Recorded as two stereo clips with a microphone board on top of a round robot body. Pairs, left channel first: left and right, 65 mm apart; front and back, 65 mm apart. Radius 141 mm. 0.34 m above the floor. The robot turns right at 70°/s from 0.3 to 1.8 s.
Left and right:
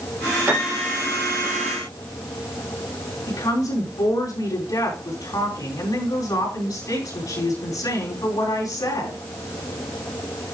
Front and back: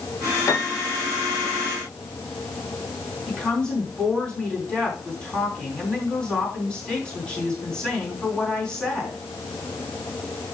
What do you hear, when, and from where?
0.5 s a piano: 30° right, 3.5 m; by 1.0 s 5° left, 3.5 m
3.3 s a woman speaking: 75° left, 5 m